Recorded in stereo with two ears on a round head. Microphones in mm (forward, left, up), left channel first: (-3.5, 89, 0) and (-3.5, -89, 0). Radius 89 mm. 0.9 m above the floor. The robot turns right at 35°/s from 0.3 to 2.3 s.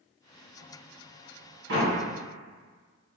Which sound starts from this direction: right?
A door slam, at 1.7 s.